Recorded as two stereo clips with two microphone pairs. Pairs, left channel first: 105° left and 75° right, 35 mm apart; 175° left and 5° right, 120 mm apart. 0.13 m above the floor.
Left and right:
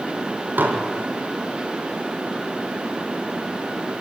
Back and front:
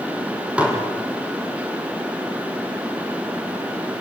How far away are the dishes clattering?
About 4.5 m.